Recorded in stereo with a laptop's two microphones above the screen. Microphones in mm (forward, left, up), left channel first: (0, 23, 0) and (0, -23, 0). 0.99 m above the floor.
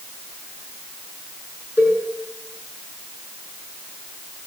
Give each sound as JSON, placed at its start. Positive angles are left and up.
{"t": 1.8, "sound": "a cowbell", "side_deg": -70, "distance_m": 5.5}